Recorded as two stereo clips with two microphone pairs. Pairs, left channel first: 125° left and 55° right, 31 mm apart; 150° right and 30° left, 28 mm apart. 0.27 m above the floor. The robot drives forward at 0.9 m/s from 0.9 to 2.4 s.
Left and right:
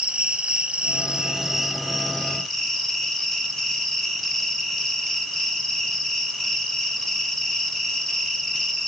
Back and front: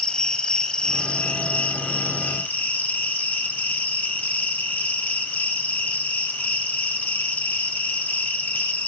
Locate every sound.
0.0 s an insect: 100° right, 0.9 m; by 8.9 s 155° right, 1.7 m